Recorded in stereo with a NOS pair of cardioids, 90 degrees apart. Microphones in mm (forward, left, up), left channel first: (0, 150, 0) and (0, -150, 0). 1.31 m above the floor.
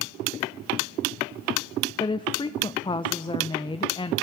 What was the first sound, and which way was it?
A woman speaking, 15° left.